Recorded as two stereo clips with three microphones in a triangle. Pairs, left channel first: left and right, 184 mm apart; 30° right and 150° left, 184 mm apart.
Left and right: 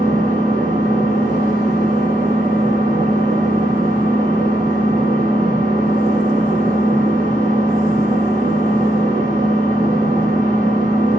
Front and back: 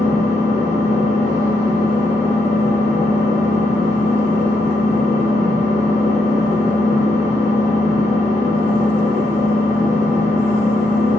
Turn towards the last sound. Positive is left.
turn(degrees=-100)